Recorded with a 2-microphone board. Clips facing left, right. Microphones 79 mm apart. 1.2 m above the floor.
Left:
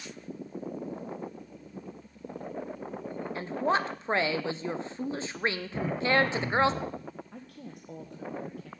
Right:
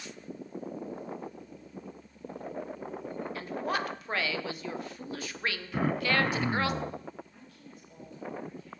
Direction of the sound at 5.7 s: 65° right (ahead or behind).